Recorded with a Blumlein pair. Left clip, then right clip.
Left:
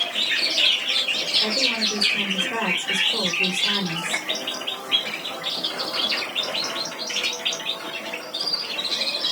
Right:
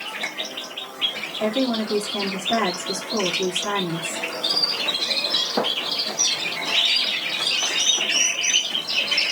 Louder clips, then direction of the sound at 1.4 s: Left 2 dB; 55° right.